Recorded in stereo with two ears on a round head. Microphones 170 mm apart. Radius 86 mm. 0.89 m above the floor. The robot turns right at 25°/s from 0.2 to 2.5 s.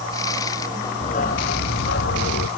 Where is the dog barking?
35° left; by 2.5 s 75° left.